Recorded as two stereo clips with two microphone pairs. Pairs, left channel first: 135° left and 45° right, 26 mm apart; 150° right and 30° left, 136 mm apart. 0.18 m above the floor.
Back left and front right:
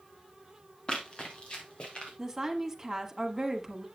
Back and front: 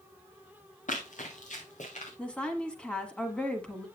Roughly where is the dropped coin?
No dropped coin in this recording.